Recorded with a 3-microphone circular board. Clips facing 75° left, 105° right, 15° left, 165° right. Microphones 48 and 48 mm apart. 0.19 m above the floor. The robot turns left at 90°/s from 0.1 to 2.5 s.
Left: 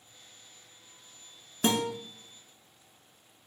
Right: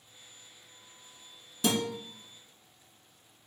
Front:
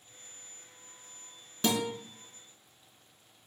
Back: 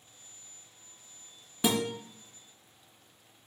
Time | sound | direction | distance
1.6 | a guitar | 120° left | 0.7 m